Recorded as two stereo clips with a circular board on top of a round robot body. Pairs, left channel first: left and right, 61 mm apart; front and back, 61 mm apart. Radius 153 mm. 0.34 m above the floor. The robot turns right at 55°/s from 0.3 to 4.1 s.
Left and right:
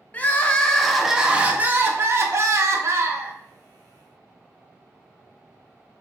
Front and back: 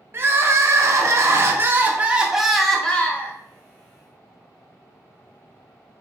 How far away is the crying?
About 0.6 m.